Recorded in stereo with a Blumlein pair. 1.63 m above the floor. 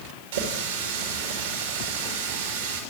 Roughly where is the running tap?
Ahead right.